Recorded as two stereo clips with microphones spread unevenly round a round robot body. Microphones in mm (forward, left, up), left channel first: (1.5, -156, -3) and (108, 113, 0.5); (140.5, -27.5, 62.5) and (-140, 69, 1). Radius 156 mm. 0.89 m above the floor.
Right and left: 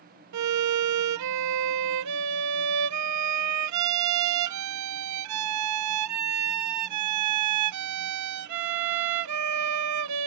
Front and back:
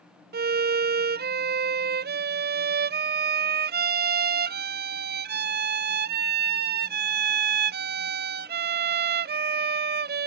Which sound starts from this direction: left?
A violin, at 0.3 s.